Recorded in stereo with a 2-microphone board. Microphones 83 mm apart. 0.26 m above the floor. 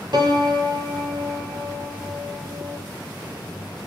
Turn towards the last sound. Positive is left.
turn(degrees=-55)  # may be behind; listen again after turning